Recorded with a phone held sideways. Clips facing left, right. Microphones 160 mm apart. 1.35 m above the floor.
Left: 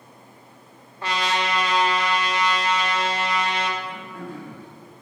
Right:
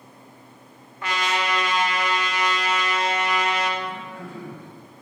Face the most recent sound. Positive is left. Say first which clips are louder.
# right 1 dB
turn(degrees=55)  # may be behind; listen again after turning